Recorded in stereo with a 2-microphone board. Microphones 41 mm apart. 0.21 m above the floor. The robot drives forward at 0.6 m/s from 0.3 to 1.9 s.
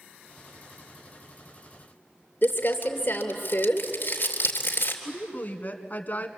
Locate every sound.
2.4 s crumpling: 50° left (ahead or behind), 3 m
5.0 s a woman speaking: 45° left (ahead or behind), 2 m